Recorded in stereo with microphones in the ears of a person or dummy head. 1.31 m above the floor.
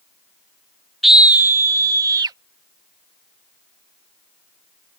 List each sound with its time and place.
1.0 s a scream: centre (ahead or behind); by 2.4 s 20° right (ahead or behind)